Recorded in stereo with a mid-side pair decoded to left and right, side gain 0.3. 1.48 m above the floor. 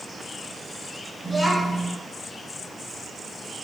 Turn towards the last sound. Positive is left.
turn(degrees=0)